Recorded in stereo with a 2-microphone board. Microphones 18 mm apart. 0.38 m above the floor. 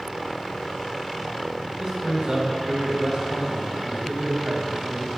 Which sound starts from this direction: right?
A man speaking, at 1.8 s.